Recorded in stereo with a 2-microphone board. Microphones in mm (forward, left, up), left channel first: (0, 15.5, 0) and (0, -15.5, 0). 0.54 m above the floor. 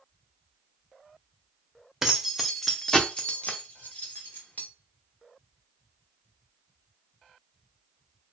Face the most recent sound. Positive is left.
turn(degrees=70)  # may be behind; listen again after turning